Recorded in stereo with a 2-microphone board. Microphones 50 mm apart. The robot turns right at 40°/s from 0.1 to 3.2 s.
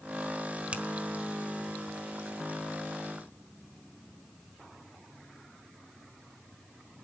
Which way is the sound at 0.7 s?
25° right (ahead or behind).